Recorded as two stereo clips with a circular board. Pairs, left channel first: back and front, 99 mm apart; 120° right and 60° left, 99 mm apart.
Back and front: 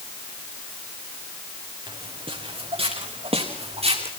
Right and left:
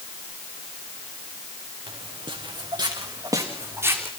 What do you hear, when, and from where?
1.9 s footsteps: 35° left, 4.5 m; by 4.1 s 10° right, 4 m